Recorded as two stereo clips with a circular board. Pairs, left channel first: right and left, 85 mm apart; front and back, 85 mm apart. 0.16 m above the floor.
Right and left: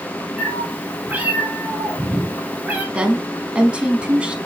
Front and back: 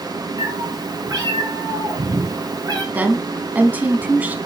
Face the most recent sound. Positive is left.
turn(degrees=145)